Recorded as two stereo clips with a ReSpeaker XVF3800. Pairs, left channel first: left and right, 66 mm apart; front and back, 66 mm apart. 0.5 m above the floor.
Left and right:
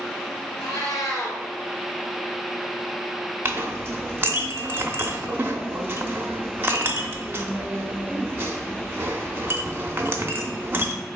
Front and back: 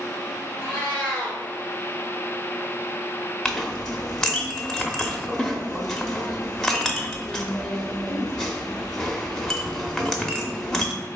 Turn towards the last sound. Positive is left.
turn(degrees=-75)